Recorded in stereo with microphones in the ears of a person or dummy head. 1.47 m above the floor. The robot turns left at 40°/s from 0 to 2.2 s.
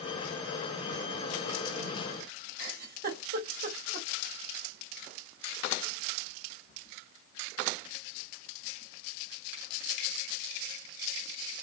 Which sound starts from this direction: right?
A giggle, at 2.6 s.